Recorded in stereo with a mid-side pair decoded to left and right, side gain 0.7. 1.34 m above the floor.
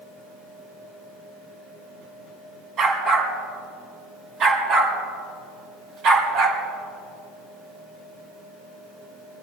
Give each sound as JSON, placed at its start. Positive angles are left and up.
{"t": 2.8, "sound": "a dog barking", "azimuth_deg": -40, "distance_m": 5.5}